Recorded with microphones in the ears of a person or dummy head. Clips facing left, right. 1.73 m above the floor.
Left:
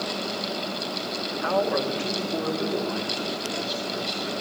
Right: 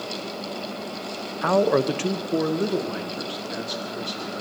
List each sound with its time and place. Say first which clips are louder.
1.4 s a man speaking: right 5 dB; 60° right (ahead or behind), 0.8 m; by 4.4 s 30° right (ahead or behind), 3.5 m